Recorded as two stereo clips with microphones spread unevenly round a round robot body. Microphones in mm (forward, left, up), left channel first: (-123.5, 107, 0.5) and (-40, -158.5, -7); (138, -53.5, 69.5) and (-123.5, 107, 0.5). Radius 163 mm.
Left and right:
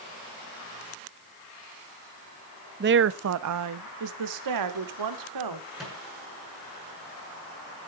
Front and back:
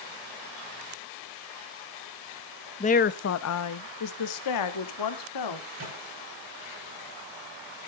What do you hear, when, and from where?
2.8 s a woman speaking: 110° right, 0.6 m; by 5.7 s 60° right, 2 m
5.8 s a microwave: 160° right, 8 m